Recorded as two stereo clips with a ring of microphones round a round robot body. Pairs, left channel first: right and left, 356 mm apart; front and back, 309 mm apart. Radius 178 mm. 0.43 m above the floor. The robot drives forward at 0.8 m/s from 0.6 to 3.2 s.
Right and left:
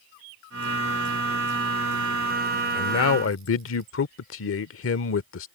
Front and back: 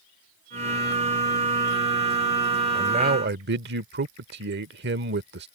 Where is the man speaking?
105° right; by 5.5 s 130° right.